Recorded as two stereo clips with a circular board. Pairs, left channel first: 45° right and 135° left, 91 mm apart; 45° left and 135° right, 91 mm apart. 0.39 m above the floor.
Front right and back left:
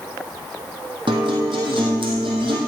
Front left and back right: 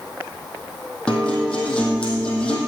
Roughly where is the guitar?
Behind left.